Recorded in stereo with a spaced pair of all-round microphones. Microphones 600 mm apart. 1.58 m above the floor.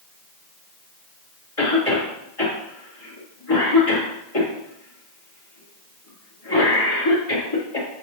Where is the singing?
No singing in this recording.